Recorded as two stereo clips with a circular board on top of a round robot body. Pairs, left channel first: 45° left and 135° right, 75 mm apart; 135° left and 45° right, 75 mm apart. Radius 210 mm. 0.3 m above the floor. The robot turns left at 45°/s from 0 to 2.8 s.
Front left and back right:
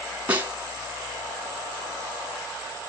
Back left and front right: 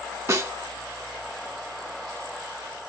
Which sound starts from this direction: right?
A snare drum, at 0.3 s.